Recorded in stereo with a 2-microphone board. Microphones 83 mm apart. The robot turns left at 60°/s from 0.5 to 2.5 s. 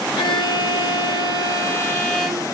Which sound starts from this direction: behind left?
A violin, at 0.2 s.